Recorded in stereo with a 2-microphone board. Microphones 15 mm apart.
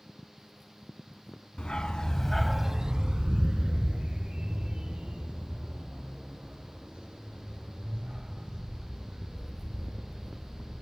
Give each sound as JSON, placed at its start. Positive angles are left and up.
{"t": 1.6, "sound": "a dog barking", "side_deg": 65, "distance_m": 1.1}